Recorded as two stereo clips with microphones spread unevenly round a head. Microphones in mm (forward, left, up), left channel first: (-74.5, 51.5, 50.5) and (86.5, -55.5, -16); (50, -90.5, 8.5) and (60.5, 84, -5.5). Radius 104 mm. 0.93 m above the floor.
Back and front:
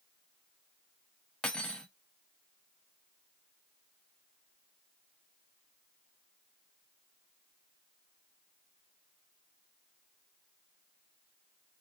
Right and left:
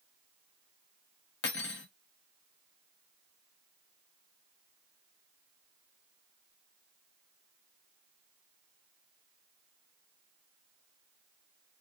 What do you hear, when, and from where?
1.4 s cutlery clinking: 130° right, 0.5 m